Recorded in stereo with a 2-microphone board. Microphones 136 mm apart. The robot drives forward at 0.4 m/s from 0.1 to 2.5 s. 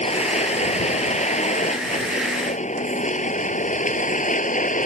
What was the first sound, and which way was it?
A vehicle, 55° left (ahead or behind).